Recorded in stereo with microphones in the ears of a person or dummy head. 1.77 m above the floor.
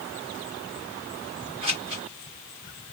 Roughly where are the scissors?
Right.